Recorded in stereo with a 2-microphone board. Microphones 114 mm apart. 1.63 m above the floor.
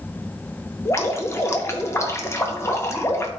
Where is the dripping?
25° left (ahead or behind), 1.0 m.